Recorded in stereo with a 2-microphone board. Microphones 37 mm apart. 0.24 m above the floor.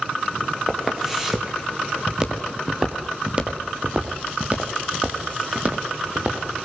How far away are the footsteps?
About 5.5 m.